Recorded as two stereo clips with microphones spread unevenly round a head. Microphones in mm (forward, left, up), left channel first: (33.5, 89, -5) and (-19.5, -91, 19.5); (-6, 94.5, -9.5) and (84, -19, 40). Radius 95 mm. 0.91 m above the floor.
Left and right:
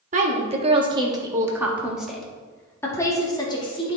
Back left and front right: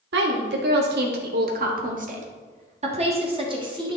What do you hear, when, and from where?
0.1 s a woman speaking: 55° right, 1.7 m; by 4.0 s 15° left, 2 m